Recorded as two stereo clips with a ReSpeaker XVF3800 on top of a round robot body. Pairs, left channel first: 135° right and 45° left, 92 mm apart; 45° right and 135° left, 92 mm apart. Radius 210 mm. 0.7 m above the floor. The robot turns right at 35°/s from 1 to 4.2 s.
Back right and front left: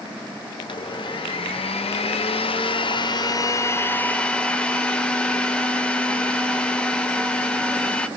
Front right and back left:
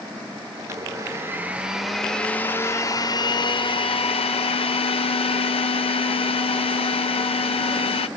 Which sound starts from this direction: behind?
A blender, at 0.6 s.